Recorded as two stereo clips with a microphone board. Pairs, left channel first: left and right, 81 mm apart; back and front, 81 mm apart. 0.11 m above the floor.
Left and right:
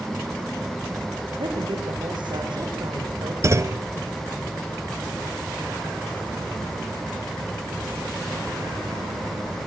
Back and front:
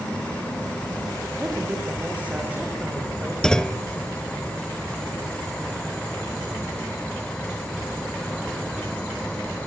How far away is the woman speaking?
About 6.5 m.